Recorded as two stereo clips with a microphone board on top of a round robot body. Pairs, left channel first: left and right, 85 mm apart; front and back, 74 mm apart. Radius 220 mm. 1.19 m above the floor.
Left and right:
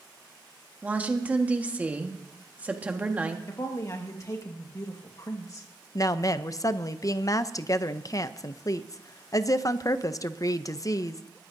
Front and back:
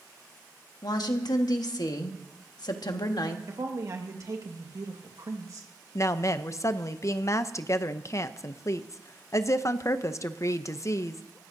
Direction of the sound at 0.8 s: 20° right.